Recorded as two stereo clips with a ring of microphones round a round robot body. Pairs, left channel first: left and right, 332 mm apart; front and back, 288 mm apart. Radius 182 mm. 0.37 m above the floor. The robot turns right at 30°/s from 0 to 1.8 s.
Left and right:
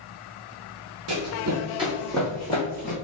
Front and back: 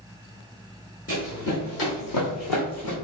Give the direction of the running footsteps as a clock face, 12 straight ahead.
2 o'clock.